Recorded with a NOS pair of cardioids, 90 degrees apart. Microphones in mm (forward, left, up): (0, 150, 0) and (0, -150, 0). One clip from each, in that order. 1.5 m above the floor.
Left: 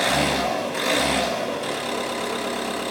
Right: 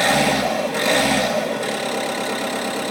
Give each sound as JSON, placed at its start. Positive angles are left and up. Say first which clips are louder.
{"t": 0.0, "sound": "an engine running", "louder": "right 4 dB", "azimuth_deg": -50, "distance_m": 4.0}